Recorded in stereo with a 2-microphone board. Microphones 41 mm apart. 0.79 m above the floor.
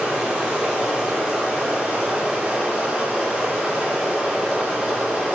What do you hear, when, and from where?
0.0 s running water: 15° right (ahead or behind), 3.5 m